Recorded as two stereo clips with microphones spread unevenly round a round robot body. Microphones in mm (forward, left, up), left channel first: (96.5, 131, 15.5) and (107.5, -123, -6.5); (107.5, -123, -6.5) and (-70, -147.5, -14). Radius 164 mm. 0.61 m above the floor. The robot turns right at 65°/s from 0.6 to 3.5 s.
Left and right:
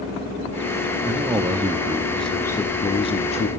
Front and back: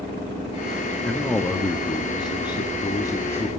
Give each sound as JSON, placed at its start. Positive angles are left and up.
{"t": 1.1, "sound": "a man speaking", "azimuth_deg": -80, "distance_m": 0.6}